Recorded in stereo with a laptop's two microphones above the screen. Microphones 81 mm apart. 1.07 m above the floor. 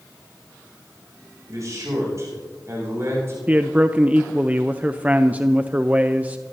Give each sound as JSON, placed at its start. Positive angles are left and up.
{"t": 1.5, "sound": "a man speaking", "side_deg": -45, "distance_m": 8.0}
{"t": 3.5, "sound": "a man speaking", "side_deg": -20, "distance_m": 0.6}